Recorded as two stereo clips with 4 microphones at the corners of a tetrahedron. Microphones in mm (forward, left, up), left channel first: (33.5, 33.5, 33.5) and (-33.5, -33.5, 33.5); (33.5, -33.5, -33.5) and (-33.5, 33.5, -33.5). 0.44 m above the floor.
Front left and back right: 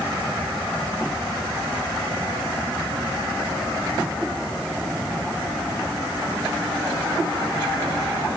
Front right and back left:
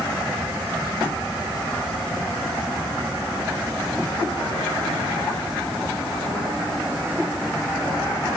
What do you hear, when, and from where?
Only background noise.